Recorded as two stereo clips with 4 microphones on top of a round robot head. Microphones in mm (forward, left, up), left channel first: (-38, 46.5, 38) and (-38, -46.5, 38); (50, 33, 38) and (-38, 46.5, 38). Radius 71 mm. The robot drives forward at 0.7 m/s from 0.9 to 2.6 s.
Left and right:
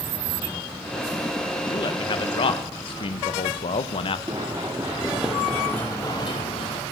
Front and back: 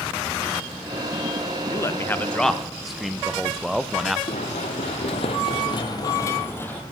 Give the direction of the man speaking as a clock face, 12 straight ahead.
11 o'clock.